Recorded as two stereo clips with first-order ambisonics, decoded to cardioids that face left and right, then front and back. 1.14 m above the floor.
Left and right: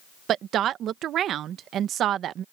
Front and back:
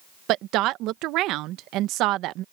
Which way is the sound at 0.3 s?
145° right.